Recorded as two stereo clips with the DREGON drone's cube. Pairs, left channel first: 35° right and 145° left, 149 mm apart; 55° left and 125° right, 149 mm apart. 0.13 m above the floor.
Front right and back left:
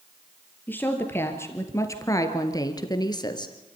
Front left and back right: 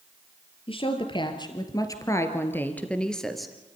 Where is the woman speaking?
35° left, 2 m; by 3.5 s 35° right, 1.9 m.